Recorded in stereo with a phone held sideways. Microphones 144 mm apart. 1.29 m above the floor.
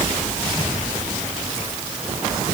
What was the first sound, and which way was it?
Only background noise.